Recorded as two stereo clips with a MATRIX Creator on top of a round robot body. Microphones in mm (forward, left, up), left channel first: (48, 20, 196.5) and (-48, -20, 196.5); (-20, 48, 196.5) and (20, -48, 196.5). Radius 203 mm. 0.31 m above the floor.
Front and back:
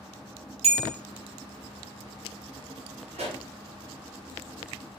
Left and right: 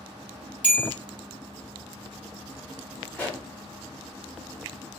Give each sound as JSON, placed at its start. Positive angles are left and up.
{"t": 0.6, "sound": "a bell", "azimuth_deg": -145, "distance_m": 0.9}
{"t": 3.1, "sound": "a pop", "azimuth_deg": -170, "distance_m": 1.0}